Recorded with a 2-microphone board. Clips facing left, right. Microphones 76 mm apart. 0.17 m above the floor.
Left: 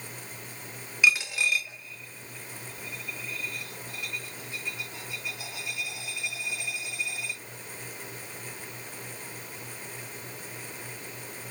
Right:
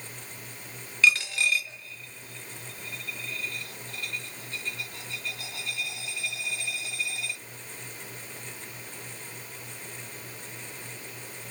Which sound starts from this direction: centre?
A dropped coin, at 1.0 s.